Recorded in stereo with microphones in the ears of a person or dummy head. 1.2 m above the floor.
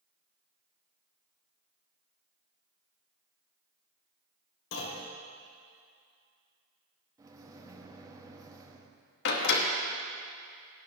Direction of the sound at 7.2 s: 25° right (ahead or behind).